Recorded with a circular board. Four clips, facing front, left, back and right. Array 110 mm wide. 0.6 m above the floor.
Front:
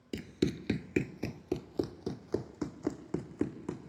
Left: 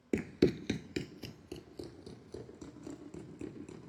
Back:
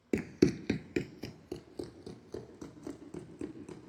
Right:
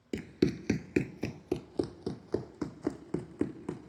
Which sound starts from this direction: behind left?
Running footsteps, at 0.1 s.